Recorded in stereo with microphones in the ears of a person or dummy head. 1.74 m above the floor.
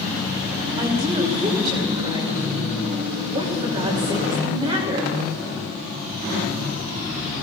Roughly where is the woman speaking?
Right.